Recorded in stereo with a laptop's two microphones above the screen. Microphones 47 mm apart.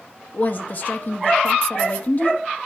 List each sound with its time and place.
0.3 s a woman speaking: 40° left (ahead or behind), 1.0 m